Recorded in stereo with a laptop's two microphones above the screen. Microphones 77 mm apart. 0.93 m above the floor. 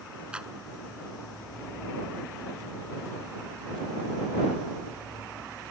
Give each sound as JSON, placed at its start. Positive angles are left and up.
{"t": 0.3, "sound": "a clap", "side_deg": -10}